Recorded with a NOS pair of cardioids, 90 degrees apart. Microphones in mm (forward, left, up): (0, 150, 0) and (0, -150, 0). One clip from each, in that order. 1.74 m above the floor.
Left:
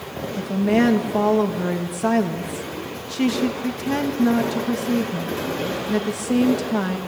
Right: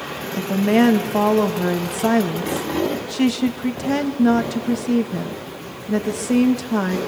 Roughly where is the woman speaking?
Ahead.